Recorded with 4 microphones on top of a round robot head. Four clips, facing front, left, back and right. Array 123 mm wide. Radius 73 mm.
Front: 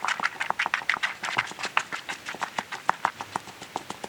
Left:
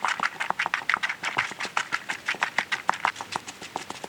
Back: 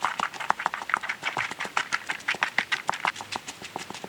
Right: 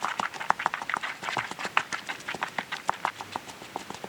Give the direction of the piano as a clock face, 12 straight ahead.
I don't hear a piano.